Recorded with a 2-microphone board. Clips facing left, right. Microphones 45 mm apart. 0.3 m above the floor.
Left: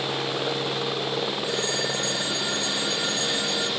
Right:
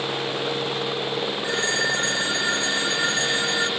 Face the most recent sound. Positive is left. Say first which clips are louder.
# right 4 dB
turn(degrees=-50)  # may be behind; listen again after turning